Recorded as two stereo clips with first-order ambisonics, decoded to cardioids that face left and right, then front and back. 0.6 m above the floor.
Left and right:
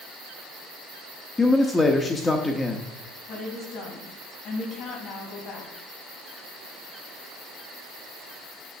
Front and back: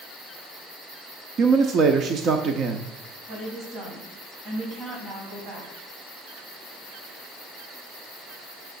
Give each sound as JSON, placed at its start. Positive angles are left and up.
{"t": 1.4, "sound": "a man speaking", "azimuth_deg": 160, "distance_m": 0.7}
{"t": 3.3, "sound": "a woman speaking", "azimuth_deg": 135, "distance_m": 4.0}